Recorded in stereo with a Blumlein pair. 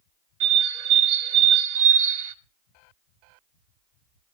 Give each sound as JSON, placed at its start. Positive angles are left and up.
{"t": 0.4, "sound": "a bird", "azimuth_deg": -55, "distance_m": 0.9}